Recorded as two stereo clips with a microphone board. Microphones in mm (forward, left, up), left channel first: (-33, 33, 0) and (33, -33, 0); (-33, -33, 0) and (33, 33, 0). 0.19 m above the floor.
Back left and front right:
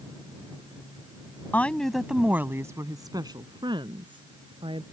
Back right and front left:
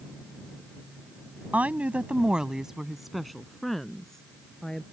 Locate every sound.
1.5 s a woman speaking: 95° left; by 4.8 s 50° right